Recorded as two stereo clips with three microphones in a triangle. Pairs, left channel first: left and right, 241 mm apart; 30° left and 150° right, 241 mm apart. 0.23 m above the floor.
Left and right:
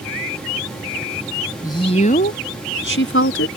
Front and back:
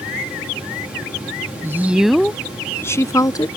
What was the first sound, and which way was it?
A woman speaking, 145° left.